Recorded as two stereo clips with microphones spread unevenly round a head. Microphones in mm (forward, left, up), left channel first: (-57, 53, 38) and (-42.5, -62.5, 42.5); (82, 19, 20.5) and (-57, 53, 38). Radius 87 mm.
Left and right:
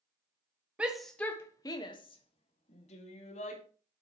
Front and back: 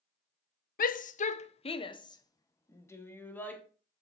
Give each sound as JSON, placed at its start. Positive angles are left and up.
{"t": 0.8, "sound": "a shout", "azimuth_deg": 0, "distance_m": 1.1}